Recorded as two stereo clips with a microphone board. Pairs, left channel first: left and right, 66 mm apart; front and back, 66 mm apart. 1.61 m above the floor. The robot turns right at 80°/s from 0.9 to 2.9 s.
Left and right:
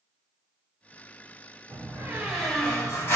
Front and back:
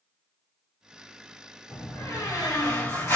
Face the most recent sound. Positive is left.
turn(degrees=45)